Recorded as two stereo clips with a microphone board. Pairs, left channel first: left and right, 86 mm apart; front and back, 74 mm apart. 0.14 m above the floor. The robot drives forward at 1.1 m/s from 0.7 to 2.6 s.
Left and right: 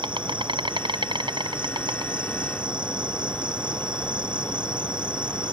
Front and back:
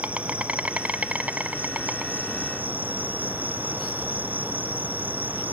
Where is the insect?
110° right; by 5.5 s 115° right.